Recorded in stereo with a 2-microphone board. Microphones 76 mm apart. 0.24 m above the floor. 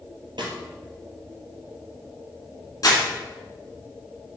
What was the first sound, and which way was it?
A snare drum, 80° right.